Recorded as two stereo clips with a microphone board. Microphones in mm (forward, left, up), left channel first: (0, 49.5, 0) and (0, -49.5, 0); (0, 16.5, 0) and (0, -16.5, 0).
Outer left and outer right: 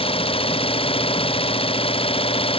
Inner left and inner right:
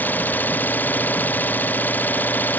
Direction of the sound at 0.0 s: 65° left (ahead or behind).